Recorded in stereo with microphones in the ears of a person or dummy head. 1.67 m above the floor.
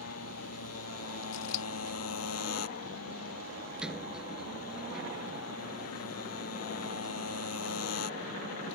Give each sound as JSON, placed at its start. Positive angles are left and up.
{"t": 0.0, "sound": "a motorcycle", "side_deg": 85}
{"t": 1.3, "sound": "scissors", "side_deg": 70}
{"t": 3.8, "sound": "a sliding door", "side_deg": -5}